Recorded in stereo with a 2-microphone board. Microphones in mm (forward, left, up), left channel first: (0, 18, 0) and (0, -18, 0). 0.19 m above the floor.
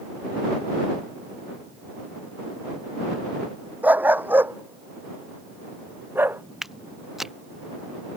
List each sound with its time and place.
3.8 s a dog barking: 50° right (ahead or behind); by 6.4 s 85° right
6.6 s footsteps: 10° right (ahead or behind)